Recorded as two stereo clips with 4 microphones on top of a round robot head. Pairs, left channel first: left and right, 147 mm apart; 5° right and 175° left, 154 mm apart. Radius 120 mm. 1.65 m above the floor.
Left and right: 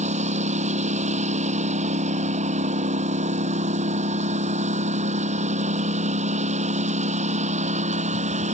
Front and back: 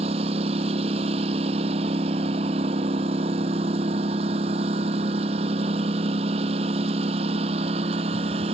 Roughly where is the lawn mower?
Behind right.